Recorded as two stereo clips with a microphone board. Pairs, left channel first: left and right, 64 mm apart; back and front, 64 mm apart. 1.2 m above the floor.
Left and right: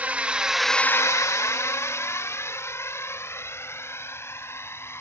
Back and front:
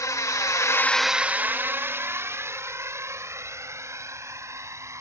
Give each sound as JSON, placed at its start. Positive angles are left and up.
{"t": 0.0, "sound": "a drone", "azimuth_deg": -155}